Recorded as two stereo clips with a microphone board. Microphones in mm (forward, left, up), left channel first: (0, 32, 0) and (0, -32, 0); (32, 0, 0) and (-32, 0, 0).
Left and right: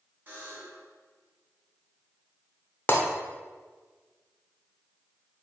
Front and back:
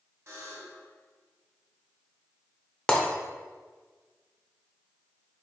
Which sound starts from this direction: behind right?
A buzzer, at 0.3 s.